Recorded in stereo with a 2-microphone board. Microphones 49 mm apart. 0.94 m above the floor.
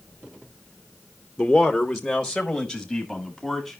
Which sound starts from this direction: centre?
A man speaking, at 1.4 s.